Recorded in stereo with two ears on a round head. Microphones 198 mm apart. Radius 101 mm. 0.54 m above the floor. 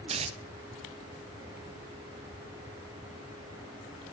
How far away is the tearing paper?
About 0.5 m.